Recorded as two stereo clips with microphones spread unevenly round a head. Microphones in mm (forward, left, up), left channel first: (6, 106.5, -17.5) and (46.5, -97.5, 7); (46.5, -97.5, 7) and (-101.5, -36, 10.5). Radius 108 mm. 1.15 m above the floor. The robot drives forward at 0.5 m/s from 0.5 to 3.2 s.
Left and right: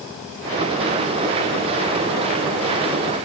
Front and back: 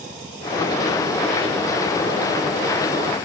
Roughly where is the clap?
I don't hear a clap.